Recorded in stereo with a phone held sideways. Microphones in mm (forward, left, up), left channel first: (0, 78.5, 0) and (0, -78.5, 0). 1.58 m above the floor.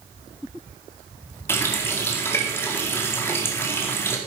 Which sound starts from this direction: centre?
A running tap, at 1.5 s.